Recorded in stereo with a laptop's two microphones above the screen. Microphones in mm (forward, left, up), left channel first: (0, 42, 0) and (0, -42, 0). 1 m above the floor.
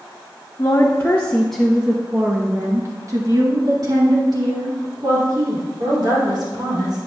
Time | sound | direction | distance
0.6 | a woman speaking | 45° left (ahead or behind) | 0.9 m